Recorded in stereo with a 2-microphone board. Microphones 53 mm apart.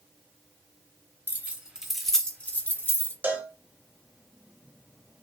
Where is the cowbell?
35° right (ahead or behind), 0.8 m.